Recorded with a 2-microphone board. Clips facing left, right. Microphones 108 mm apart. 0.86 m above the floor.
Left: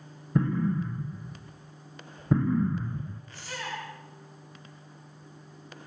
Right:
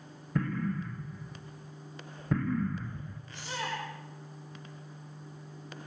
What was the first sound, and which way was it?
An explosion, 20° left (ahead or behind).